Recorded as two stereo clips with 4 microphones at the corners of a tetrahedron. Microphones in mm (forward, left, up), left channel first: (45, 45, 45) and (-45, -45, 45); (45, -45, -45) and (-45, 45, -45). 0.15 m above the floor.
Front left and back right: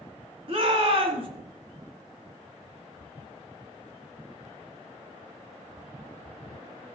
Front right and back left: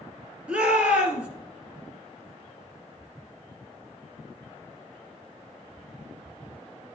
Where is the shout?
145° right, 2 m.